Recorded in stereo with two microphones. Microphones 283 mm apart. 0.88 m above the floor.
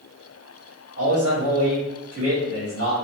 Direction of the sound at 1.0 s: 50° right (ahead or behind).